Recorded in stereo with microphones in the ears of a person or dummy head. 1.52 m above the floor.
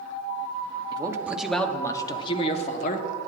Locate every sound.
0.9 s a man speaking: 15° right (ahead or behind), 0.8 m; by 3.1 s 55° left (ahead or behind), 1.2 m